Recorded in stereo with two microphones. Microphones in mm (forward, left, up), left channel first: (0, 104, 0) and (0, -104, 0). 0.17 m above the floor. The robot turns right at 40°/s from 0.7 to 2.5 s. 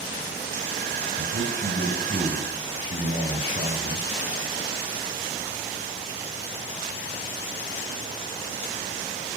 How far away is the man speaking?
About 2.5 m.